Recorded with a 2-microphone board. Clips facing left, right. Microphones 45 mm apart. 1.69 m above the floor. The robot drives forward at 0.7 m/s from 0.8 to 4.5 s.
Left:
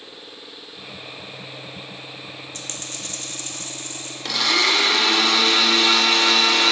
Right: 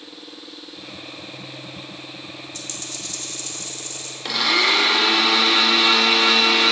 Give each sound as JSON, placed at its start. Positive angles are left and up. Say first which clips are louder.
{"t": 2.5, "sound": "a dropped coin", "louder": "even", "side_deg": 40, "distance_m": 1.3}
{"t": 4.2, "sound": "a blender", "louder": "right 1 dB", "side_deg": -5, "distance_m": 0.8}